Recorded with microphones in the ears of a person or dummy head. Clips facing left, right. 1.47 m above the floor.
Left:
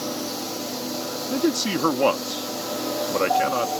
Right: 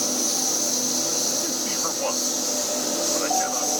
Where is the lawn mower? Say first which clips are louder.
Even; 50° right (ahead or behind); by 3.8 s 45° right (ahead or behind).